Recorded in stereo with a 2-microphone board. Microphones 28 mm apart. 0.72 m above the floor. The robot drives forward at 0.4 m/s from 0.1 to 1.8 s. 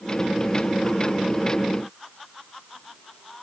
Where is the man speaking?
I don't hear a man speaking.